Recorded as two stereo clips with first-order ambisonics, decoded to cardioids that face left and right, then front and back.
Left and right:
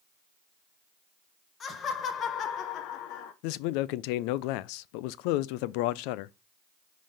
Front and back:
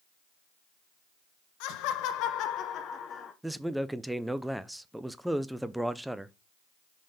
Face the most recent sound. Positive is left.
turn(degrees=95)